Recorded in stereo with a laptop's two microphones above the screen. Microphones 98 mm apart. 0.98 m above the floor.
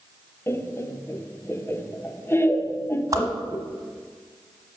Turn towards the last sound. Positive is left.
turn(degrees=-35)  # may be behind; listen again after turning